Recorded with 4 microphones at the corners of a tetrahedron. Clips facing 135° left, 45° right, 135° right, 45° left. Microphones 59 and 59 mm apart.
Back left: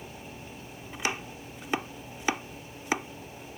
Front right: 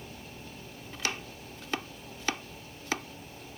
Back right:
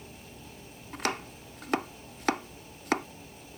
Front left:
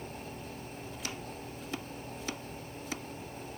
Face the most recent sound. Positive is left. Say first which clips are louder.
# back left 3 dB, back right 12 dB
turn(degrees=-155)